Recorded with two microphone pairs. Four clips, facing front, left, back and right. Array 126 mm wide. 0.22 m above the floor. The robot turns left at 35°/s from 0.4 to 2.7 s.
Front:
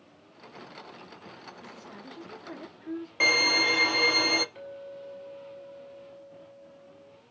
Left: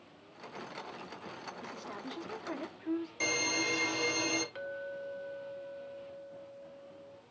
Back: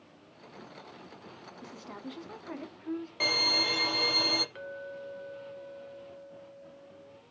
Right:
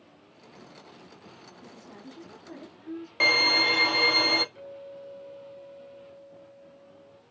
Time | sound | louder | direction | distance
1.6 | a woman speaking | left 1 dB, back 2 dB | 145° left | 2 m
3.2 | a violin | right 8 dB, front 8 dB | 75° right | 1.1 m
4.5 | a clink | left 2 dB, even | 125° left | 2 m